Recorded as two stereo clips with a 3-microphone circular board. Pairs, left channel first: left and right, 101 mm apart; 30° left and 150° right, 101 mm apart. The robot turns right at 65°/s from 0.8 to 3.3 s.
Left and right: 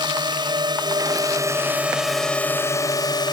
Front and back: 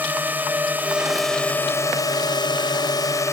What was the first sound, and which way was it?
A drone, 85° right.